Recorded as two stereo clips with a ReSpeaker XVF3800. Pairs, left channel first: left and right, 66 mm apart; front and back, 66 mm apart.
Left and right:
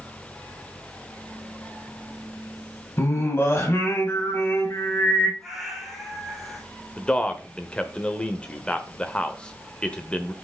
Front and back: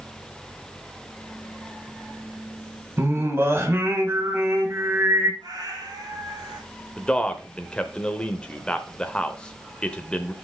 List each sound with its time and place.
3.0 s singing: 135° left, 1.7 m
5.4 s a cat meowing: straight behind, 3 m
7.0 s a man speaking: 45° left, 0.8 m